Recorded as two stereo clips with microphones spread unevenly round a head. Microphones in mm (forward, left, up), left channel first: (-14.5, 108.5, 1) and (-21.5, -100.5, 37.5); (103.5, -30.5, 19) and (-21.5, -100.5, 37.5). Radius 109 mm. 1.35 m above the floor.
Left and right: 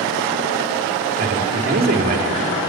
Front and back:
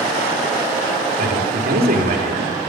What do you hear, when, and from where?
1.2 s a man speaking: 140° right, 3.5 m